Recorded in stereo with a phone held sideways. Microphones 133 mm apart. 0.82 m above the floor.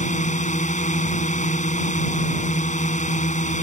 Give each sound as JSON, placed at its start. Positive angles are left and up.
{"t": 0.0, "sound": "a drone", "side_deg": 70}